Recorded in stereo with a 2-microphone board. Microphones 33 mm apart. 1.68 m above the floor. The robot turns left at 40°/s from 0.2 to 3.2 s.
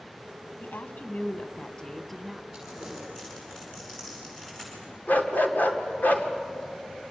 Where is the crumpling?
10° right (ahead or behind), 8.5 m; by 4.9 s 15° left (ahead or behind), 8.5 m.